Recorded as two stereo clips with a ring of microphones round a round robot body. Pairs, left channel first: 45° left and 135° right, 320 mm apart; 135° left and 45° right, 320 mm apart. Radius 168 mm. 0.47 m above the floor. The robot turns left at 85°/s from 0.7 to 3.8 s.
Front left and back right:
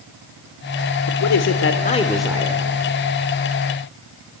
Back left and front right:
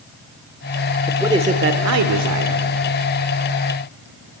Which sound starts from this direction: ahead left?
A man speaking, at 1.1 s.